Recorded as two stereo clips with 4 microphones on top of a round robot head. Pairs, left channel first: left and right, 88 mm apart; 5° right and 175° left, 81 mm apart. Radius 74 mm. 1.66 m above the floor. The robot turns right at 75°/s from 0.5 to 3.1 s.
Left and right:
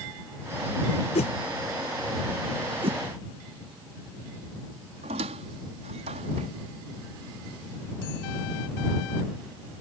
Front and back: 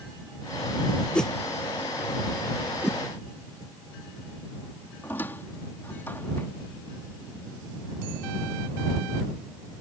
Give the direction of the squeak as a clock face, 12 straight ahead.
3 o'clock.